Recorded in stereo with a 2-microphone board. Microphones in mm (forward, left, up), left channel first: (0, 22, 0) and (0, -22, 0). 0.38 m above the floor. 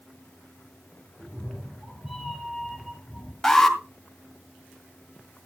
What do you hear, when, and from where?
1.2 s a cat meowing: 15° right (ahead or behind), 6 m; by 3.3 s 5° left (ahead or behind), 4 m
3.4 s an alarm: 10° left (ahead or behind), 2.0 m